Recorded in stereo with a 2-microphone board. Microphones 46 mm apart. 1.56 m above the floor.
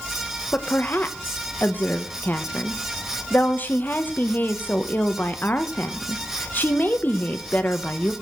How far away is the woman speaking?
About 1.2 m.